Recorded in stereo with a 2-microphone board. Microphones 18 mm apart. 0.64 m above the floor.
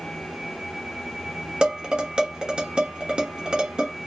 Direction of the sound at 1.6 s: 65° right (ahead or behind).